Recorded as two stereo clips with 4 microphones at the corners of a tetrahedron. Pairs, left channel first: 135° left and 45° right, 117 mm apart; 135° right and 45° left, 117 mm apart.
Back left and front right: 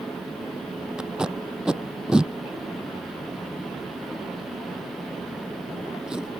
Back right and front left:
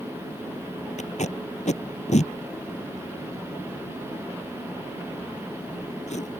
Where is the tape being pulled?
130° right.